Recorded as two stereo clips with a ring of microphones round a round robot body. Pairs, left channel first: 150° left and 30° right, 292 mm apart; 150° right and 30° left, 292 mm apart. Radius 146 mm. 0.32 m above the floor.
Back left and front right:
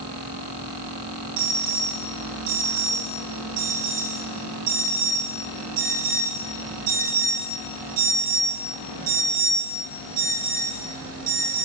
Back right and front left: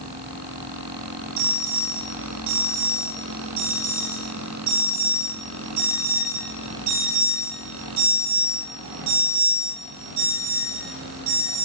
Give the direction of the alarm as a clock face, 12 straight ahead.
12 o'clock.